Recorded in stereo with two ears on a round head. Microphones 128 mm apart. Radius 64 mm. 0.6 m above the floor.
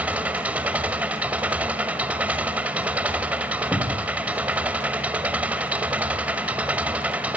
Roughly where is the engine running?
Centre.